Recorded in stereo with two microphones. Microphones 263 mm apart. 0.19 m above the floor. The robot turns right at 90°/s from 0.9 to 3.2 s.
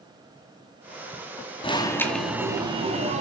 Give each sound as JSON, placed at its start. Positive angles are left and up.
{"t": 1.6, "sound": "an alarm", "side_deg": 20, "distance_m": 2.0}